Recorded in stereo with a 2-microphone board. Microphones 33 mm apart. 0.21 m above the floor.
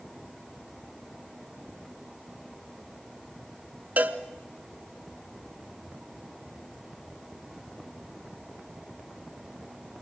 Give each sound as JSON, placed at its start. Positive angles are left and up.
{"t": 4.0, "sound": "a cowbell", "side_deg": -50, "distance_m": 1.0}